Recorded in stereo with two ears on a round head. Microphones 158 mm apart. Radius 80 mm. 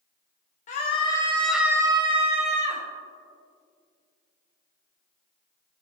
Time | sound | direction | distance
0.7 | a scream | 45° left (ahead or behind) | 0.8 m